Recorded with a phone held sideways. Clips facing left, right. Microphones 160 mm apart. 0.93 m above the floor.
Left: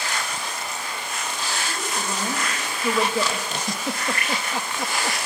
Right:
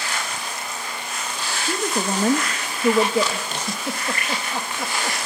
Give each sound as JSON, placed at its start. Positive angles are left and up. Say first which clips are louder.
{"t": 1.6, "sound": "a woman speaking", "louder": "right 5 dB", "side_deg": -60, "distance_m": 1.6}
{"t": 3.5, "sound": "a giggle", "louder": "even", "side_deg": 0, "distance_m": 1.4}